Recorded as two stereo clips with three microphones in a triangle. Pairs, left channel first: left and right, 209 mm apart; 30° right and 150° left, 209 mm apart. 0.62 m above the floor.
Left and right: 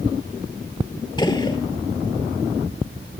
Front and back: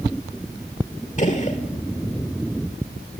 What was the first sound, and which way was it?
A gunshot, 20° left.